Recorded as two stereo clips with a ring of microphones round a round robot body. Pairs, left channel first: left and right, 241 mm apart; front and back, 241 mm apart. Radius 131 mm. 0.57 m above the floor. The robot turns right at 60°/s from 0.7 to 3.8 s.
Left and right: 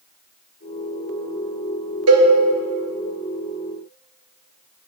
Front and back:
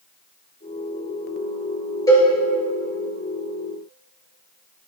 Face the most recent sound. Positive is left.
turn(degrees=25)